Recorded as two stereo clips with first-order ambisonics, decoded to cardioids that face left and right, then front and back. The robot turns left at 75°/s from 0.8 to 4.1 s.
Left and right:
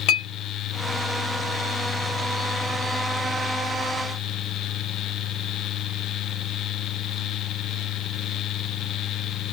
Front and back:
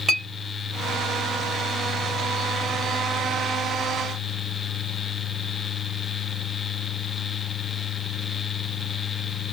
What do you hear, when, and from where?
0.1 s a clink: 110° left, 1.4 m